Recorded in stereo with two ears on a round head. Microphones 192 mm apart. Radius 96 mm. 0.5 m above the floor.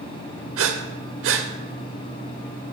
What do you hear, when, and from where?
0.6 s breathing: 70° right (ahead or behind), 0.8 m